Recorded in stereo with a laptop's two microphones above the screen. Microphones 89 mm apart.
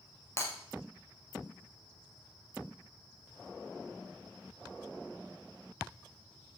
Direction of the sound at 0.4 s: 30° left (ahead or behind).